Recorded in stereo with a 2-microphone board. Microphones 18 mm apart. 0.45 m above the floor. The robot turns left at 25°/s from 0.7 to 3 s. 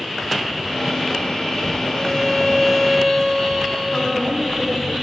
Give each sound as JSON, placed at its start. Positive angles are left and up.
{"t": 1.9, "sound": "a violin", "side_deg": 30, "distance_m": 2.0}
{"t": 3.9, "sound": "a woman speaking", "side_deg": 60, "distance_m": 4.0}